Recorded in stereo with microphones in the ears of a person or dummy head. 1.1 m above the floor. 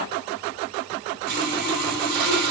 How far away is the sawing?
About 5.5 m.